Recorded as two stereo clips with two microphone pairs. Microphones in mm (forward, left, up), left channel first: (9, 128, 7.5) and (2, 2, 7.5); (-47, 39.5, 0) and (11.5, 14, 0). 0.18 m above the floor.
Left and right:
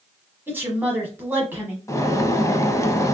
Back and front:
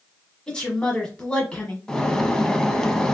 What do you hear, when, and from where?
0.5 s a woman speaking: 155° right, 1.0 m
1.9 s a bird: 95° left, 0.5 m